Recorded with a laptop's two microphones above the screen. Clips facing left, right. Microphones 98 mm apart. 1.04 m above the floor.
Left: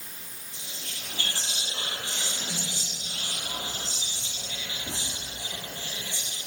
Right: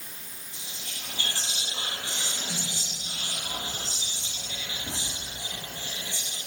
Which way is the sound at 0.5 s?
20° right (ahead or behind).